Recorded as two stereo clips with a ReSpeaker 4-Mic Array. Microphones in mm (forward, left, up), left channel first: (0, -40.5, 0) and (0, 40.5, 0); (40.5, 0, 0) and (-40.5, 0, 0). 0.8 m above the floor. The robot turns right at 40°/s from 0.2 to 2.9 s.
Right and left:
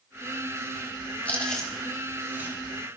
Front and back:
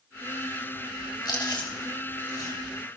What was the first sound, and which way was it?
Chewing, 20° right.